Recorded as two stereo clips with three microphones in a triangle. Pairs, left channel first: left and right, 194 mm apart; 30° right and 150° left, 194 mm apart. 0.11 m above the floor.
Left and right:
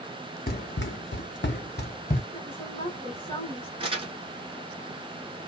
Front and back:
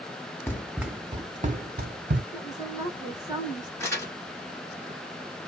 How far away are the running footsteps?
About 0.6 m.